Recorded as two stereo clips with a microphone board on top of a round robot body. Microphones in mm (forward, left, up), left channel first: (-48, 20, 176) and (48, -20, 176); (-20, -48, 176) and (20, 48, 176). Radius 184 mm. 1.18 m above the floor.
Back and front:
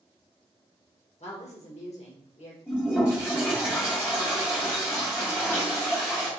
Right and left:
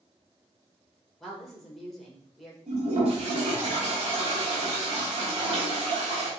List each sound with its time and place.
1.2 s a woman speaking: 160° left, 1.7 m
2.7 s a toilet flushing: 90° left, 1.3 m